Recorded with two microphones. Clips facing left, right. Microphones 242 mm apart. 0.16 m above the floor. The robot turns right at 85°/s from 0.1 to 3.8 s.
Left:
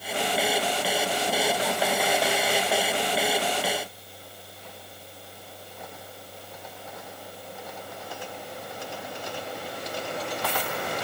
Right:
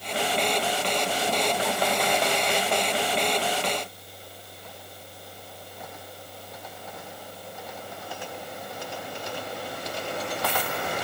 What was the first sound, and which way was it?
Only background noise.